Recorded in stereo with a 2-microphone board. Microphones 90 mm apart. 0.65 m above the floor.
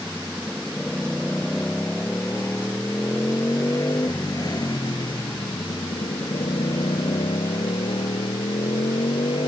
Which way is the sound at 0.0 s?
10° left (ahead or behind).